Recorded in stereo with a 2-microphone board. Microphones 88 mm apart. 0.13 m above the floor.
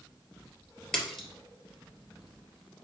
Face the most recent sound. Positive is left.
turn(degrees=5)  # may be behind; listen again after turning